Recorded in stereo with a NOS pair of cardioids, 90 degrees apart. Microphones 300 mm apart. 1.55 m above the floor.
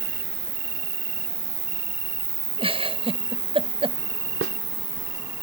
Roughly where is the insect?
Ahead right.